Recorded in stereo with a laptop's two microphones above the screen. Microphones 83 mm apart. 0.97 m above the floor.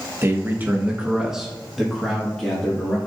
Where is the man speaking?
35° right (ahead or behind), 1.0 m; by 3.0 s 10° left (ahead or behind), 2 m.